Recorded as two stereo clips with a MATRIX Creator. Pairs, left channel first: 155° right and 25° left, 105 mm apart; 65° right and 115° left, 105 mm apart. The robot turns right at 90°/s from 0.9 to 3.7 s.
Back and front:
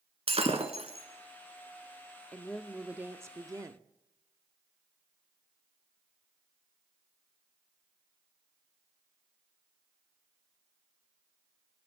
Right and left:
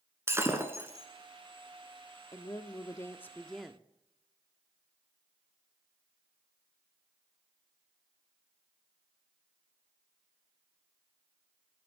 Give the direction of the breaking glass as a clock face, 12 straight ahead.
10 o'clock.